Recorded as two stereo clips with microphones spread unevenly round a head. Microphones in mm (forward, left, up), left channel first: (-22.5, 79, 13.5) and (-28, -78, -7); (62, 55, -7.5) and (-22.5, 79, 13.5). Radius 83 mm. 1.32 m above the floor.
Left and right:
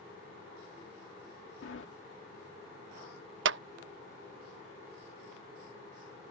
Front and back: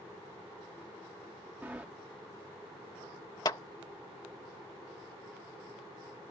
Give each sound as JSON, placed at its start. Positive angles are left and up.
{"t": 1.6, "sound": "a sliding door", "azimuth_deg": 90}
{"t": 3.5, "sound": "a clap", "azimuth_deg": -85}